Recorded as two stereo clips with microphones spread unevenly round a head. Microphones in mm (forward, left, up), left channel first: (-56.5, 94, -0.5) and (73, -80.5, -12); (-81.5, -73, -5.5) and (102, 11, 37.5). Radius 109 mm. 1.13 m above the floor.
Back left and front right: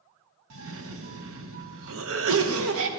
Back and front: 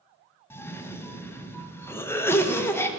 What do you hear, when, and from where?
0.5 s a cough: 80° right, 0.8 m